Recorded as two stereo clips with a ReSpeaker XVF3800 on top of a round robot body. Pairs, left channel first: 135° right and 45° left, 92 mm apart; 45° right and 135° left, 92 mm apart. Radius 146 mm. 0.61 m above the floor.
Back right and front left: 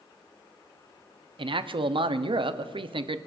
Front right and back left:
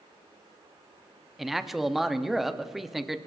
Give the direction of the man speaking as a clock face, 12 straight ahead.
10 o'clock.